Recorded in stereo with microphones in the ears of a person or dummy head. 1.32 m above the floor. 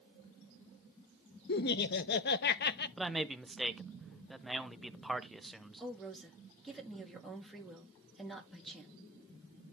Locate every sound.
1.5 s laughter: 50° left (ahead or behind), 0.7 m
3.0 s a man speaking: centre (ahead or behind), 0.7 m
5.8 s a woman speaking: 5° left (ahead or behind), 3 m